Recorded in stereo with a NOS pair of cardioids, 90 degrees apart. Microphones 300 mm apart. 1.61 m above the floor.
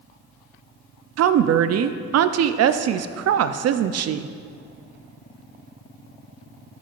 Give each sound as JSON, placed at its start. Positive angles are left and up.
{"t": 1.2, "sound": "a woman speaking", "azimuth_deg": -55, "distance_m": 0.5}